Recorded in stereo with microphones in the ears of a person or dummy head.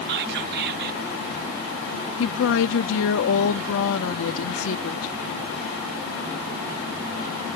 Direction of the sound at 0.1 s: 55° right (ahead or behind).